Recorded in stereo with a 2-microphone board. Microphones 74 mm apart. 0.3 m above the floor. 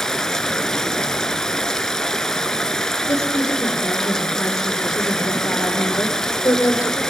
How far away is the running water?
About 1.5 m.